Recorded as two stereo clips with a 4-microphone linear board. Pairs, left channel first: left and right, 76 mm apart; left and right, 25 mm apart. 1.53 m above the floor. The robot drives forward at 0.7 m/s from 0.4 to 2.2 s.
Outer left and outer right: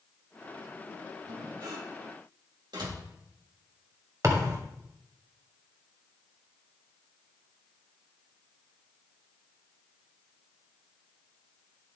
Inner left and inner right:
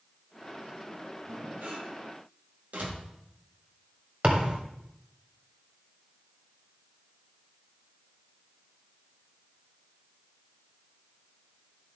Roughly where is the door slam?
Right.